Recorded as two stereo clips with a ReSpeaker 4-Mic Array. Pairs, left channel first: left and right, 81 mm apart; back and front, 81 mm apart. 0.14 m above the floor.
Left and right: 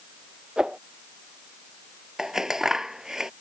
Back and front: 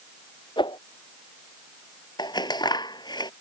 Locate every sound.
0.6 s a whoosh: 170° right
2.2 s scissors: 175° right